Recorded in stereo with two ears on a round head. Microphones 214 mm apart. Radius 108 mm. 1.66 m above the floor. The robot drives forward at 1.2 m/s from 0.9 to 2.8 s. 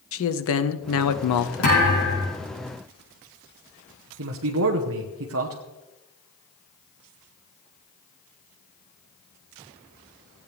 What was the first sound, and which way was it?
A man speaking, 55° left (ahead or behind).